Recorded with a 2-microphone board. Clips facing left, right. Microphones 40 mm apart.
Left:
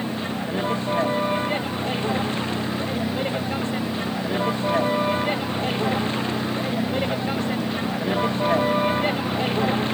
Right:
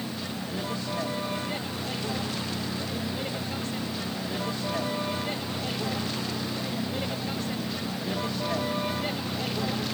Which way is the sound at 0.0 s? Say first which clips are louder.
Left 7 dB; 35° left (ahead or behind).